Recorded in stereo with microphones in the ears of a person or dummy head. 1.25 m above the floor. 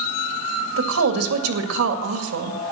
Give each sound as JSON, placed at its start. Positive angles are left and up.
{"t": 0.8, "sound": "a woman speaking", "side_deg": -80, "distance_m": 2.0}